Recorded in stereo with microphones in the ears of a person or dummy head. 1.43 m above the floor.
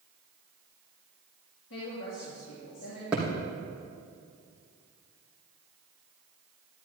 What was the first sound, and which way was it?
A woman speaking, 75° left (ahead or behind).